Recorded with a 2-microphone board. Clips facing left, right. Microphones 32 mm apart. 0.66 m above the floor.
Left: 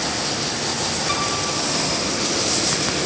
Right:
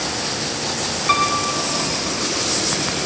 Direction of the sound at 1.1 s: 40° right (ahead or behind).